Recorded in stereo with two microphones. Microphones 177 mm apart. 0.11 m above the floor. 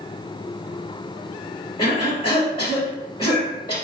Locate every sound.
1.8 s a cough: 30° left (ahead or behind), 1.9 m